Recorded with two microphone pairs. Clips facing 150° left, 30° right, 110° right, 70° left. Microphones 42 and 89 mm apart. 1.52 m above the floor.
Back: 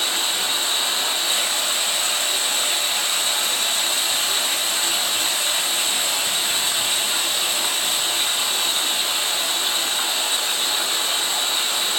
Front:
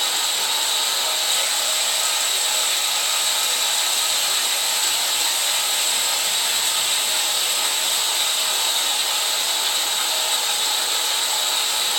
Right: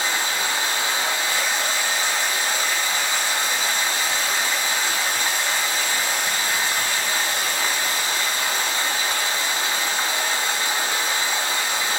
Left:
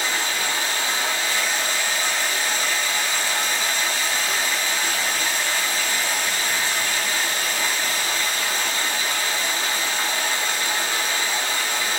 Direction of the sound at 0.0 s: 165° right.